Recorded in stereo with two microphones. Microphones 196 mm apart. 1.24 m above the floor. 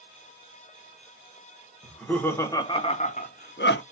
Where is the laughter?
5° left (ahead or behind), 1.1 m; by 3.8 s 70° left (ahead or behind), 0.6 m.